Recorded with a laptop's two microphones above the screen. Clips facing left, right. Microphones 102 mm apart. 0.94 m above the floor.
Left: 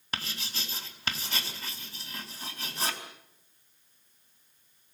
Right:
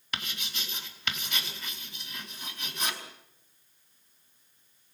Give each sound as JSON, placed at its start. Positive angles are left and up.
{"t": 0.1, "sound": "writing", "side_deg": 35, "distance_m": 4.5}